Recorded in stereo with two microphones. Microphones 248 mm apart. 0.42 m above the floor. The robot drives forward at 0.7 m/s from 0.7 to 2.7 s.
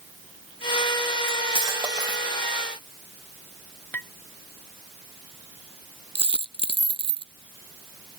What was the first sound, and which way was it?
Cutlery clinking, 25° right (ahead or behind).